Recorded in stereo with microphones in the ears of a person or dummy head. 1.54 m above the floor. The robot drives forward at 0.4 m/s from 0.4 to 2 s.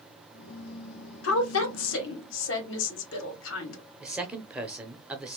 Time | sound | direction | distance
1.2 | a woman speaking | 75° left (ahead or behind) | 1.3 m
4.0 | a man speaking | centre (ahead or behind) | 0.7 m